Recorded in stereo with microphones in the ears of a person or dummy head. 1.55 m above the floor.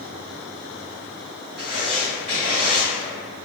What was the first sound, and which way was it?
Writing, centre (ahead or behind).